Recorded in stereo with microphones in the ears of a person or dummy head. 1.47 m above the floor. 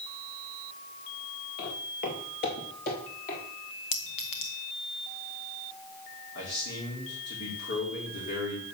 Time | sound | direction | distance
1.6 | footsteps | 50° left (ahead or behind) | 2 m
3.9 | a clink | 25° left (ahead or behind) | 0.6 m
6.3 | a man speaking | 65° left (ahead or behind) | 3 m